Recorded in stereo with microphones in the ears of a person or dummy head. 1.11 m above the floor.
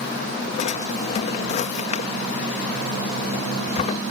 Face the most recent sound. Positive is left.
turn(degrees=40)  # may be behind; listen again after turning